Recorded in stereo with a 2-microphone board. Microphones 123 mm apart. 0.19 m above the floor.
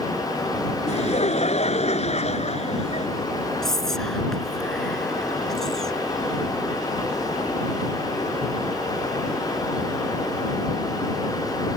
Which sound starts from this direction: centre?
Whispering, at 3.6 s.